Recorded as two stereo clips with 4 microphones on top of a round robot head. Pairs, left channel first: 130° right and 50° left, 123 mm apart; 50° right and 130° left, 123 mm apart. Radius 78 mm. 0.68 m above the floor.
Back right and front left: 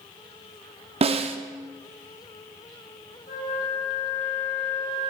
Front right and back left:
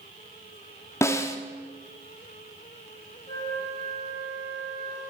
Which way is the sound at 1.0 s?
15° left.